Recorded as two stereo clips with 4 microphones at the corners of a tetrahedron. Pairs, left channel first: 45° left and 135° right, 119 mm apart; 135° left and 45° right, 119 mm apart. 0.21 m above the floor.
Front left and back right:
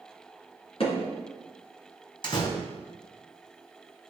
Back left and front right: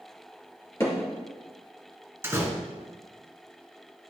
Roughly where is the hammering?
Left.